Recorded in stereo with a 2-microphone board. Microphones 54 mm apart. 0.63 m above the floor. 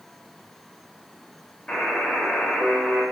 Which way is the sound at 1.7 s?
15° left (ahead or behind).